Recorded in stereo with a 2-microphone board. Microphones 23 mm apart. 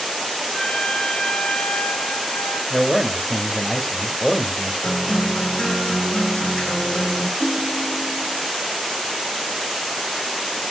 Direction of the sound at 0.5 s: 45° left (ahead or behind).